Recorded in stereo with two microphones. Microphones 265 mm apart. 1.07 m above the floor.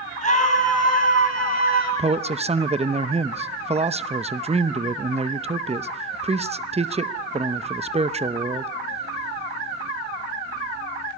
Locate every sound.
0.2 s a scream: 25° left (ahead or behind), 7.5 m; by 1.9 s 35° left (ahead or behind), 8 m
2.0 s a man speaking: 25° right (ahead or behind), 0.7 m